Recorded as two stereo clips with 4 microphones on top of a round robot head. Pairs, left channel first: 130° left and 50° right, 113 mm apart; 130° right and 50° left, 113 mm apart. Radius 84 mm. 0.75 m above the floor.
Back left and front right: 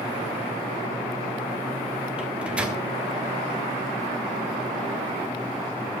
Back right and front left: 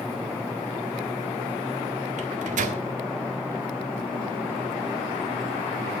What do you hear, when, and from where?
2.2 s a microwave: 35° left, 2.0 m